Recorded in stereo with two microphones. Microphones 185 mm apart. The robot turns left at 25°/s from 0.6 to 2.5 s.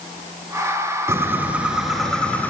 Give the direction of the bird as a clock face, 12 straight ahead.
5 o'clock.